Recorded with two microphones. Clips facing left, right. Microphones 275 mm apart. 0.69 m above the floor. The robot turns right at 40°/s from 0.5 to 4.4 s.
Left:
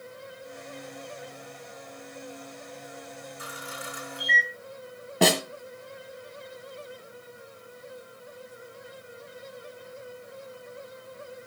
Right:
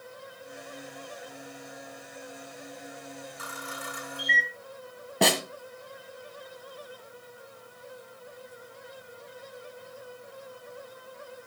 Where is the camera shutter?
85° right, 9 m; by 4.5 s 50° right (ahead or behind), 9 m.